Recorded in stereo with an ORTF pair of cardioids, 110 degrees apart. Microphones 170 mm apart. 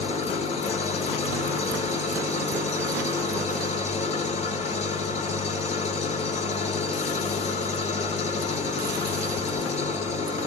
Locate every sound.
0.0 s an engine running: 40° left, 1.5 m